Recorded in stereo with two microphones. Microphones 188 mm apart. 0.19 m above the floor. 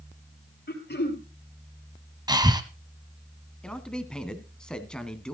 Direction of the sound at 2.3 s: 20° right (ahead or behind).